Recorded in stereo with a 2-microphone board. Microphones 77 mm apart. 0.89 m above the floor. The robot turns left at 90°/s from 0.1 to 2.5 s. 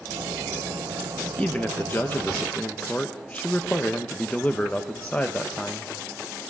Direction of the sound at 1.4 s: 15° left (ahead or behind).